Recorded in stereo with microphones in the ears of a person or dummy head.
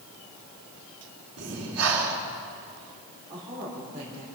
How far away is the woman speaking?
About 3.5 m.